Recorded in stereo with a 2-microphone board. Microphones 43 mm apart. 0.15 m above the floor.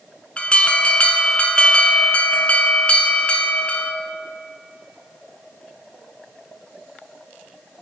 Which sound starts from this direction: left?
An alarm, at 0.4 s.